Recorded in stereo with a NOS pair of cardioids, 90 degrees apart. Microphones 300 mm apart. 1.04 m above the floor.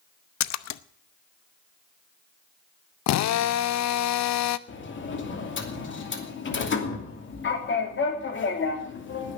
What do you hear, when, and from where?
0.4 s a splash: 65° left, 0.7 m
3.1 s a drill: 65° left, 0.7 m
4.7 s a sliding door: 40° left, 2.5 m